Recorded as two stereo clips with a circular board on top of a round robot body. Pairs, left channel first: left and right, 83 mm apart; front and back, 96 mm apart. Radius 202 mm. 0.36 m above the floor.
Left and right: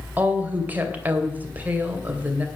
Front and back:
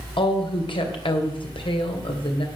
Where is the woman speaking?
20° right, 3 m.